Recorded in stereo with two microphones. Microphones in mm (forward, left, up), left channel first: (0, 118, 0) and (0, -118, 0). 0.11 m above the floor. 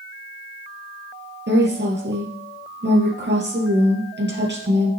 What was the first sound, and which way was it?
A woman speaking, 45° right (ahead or behind).